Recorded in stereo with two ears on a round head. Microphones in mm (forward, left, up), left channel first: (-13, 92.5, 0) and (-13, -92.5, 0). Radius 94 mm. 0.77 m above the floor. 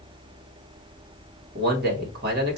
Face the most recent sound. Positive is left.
turn(degrees=-50)  # may be behind; listen again after turning